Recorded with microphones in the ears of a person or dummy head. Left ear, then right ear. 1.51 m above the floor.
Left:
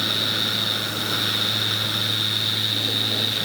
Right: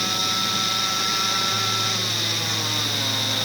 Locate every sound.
Only background noise.